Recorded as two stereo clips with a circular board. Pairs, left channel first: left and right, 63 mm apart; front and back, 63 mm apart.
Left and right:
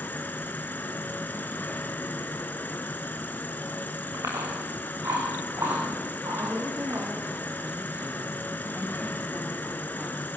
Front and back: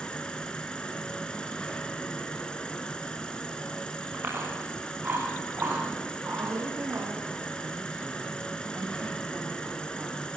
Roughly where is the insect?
Ahead left.